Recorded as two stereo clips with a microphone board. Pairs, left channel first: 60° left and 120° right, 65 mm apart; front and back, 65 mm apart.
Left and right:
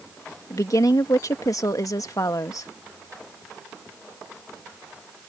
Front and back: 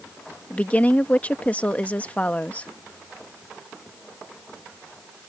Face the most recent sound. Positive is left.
turn(degrees=65)